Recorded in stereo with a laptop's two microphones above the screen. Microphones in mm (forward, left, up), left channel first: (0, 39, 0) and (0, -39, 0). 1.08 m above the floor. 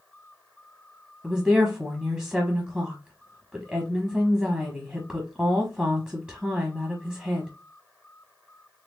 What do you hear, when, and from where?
1.2 s a woman speaking: 15° right (ahead or behind), 1.2 m